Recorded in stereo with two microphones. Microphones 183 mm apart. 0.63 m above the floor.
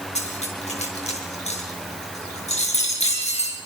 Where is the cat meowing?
I don't hear a cat meowing.